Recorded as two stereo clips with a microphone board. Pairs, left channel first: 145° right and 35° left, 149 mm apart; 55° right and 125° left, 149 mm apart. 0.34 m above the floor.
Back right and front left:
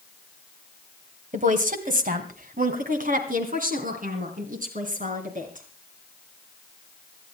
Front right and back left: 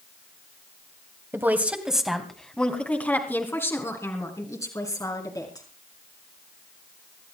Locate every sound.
1.3 s a woman speaking: 50° left, 2 m; by 5.6 s 10° left, 5.5 m